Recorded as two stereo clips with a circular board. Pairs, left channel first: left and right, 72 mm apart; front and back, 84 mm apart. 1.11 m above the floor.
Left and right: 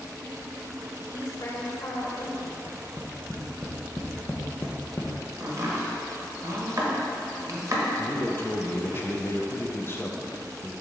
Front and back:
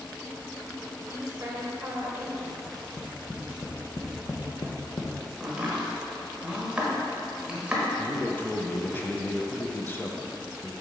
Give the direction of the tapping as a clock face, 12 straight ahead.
11 o'clock.